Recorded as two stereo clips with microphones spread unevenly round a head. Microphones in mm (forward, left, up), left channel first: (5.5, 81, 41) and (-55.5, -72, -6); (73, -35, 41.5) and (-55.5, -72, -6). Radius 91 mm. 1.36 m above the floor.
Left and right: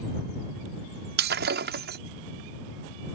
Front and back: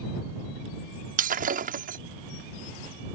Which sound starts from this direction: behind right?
Breaking glass, at 1.2 s.